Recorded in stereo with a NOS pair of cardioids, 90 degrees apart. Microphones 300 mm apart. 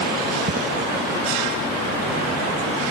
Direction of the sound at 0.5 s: 40° right.